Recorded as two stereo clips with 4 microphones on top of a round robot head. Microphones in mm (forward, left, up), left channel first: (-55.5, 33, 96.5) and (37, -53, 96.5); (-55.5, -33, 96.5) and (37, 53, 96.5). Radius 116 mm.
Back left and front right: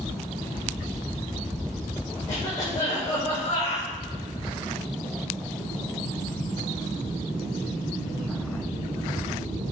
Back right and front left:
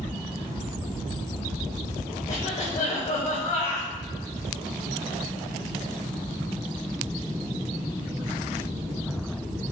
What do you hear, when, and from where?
2.3 s a cough: 165° right, 2.5 m